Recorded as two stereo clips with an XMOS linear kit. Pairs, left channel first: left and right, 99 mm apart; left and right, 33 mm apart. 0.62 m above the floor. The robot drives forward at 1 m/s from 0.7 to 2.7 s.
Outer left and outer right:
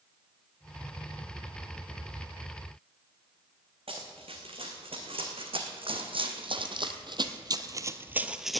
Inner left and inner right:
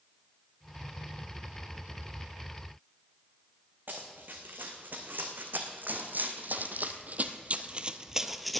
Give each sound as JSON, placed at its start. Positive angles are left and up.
{"t": 3.9, "sound": "running footsteps", "side_deg": -70, "distance_m": 2.5}